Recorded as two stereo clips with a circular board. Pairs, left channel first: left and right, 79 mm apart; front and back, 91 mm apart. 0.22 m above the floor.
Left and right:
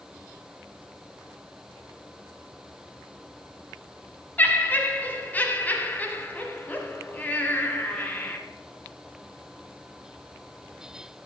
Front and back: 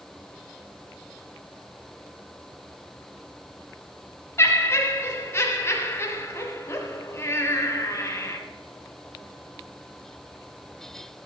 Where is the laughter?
40° left, 1.1 m.